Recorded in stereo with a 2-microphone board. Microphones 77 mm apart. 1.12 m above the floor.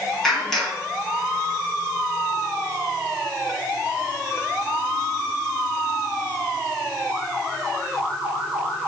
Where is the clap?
5° left (ahead or behind), 8 m.